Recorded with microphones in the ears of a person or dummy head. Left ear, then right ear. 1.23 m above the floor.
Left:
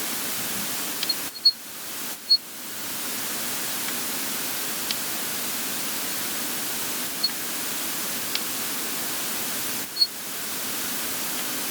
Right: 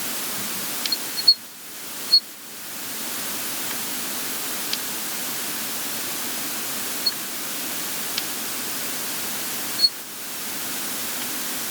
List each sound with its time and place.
Only background noise.